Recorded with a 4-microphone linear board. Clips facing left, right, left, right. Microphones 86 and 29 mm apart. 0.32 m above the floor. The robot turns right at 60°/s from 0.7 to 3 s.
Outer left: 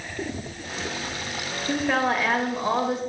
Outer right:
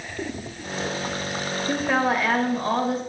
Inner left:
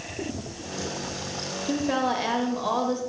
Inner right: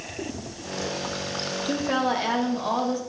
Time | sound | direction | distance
1.7 | a woman speaking | 10° right (ahead or behind) | 0.9 m